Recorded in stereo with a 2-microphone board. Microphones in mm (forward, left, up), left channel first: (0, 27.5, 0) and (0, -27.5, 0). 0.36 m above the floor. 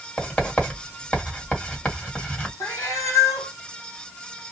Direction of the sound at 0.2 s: 20° left (ahead or behind).